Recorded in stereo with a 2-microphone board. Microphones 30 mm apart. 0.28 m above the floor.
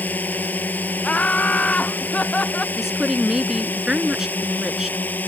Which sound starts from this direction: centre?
A woman speaking, at 2.8 s.